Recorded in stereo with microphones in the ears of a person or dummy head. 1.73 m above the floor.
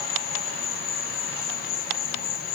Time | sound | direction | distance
0.0 | an insect | 45° left (ahead or behind) | ?